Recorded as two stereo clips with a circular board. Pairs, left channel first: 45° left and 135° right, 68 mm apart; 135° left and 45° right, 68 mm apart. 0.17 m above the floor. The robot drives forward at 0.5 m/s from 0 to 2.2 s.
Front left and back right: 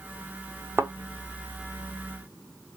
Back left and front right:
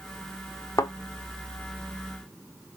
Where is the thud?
170° left, 0.7 m; by 0.9 s 175° left, 0.8 m.